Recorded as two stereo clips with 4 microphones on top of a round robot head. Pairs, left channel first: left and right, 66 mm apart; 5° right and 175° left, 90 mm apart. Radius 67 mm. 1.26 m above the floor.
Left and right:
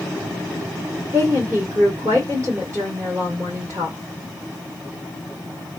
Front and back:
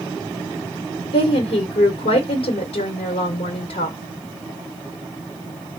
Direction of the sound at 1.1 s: 30° right.